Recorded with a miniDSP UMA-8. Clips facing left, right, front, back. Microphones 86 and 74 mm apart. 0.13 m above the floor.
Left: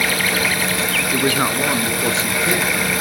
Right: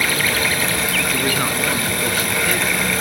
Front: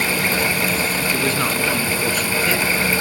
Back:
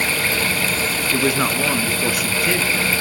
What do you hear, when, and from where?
1.1 s a man speaking: 115° left, 1.8 m